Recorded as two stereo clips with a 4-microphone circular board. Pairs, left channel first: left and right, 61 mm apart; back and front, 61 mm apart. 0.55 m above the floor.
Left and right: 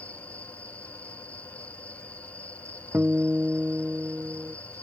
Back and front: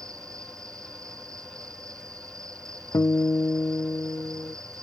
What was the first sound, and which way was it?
An insect, 20° left.